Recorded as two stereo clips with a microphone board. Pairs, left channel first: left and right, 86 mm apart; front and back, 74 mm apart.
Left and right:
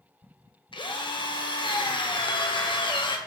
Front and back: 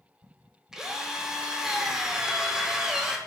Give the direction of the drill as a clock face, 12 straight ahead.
9 o'clock.